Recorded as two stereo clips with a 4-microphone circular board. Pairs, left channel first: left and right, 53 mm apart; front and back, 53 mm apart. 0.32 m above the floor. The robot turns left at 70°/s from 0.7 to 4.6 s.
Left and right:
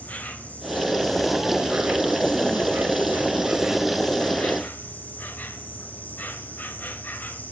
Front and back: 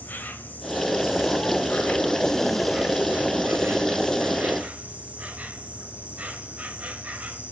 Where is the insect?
45° left, 0.9 m; by 7.5 s 130° left, 0.9 m.